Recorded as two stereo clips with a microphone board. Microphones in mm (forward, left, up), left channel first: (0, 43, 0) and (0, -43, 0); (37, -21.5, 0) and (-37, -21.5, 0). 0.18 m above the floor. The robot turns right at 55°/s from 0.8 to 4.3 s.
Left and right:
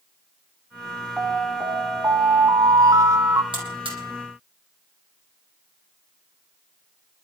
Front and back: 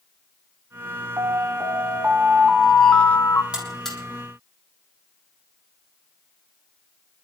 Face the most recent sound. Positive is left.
turn(degrees=-60)